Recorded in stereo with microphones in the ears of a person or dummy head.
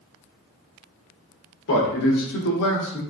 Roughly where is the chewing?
No chewing in this recording.